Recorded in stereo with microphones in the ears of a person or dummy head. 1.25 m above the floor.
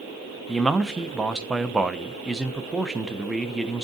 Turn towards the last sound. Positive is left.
turn(degrees=0)  # may be behind; listen again after turning